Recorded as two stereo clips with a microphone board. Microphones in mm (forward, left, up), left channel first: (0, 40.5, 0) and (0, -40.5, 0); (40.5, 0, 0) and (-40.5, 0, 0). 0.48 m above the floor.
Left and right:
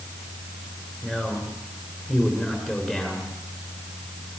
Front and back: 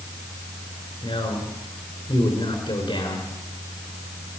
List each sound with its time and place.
1.0 s a man speaking: 5° right, 6 m